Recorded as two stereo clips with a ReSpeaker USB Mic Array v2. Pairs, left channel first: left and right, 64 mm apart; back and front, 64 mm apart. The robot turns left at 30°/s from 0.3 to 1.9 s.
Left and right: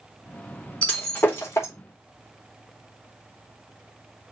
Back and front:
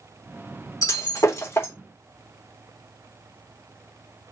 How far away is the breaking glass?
About 3.5 m.